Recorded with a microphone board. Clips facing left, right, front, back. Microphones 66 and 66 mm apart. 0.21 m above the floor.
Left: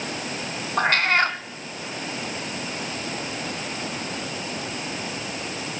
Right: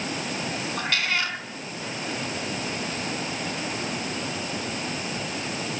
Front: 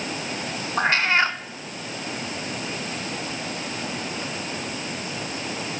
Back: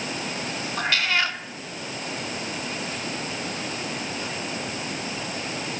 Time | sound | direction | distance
0.8 | a cat meowing | 50° left | 1.1 m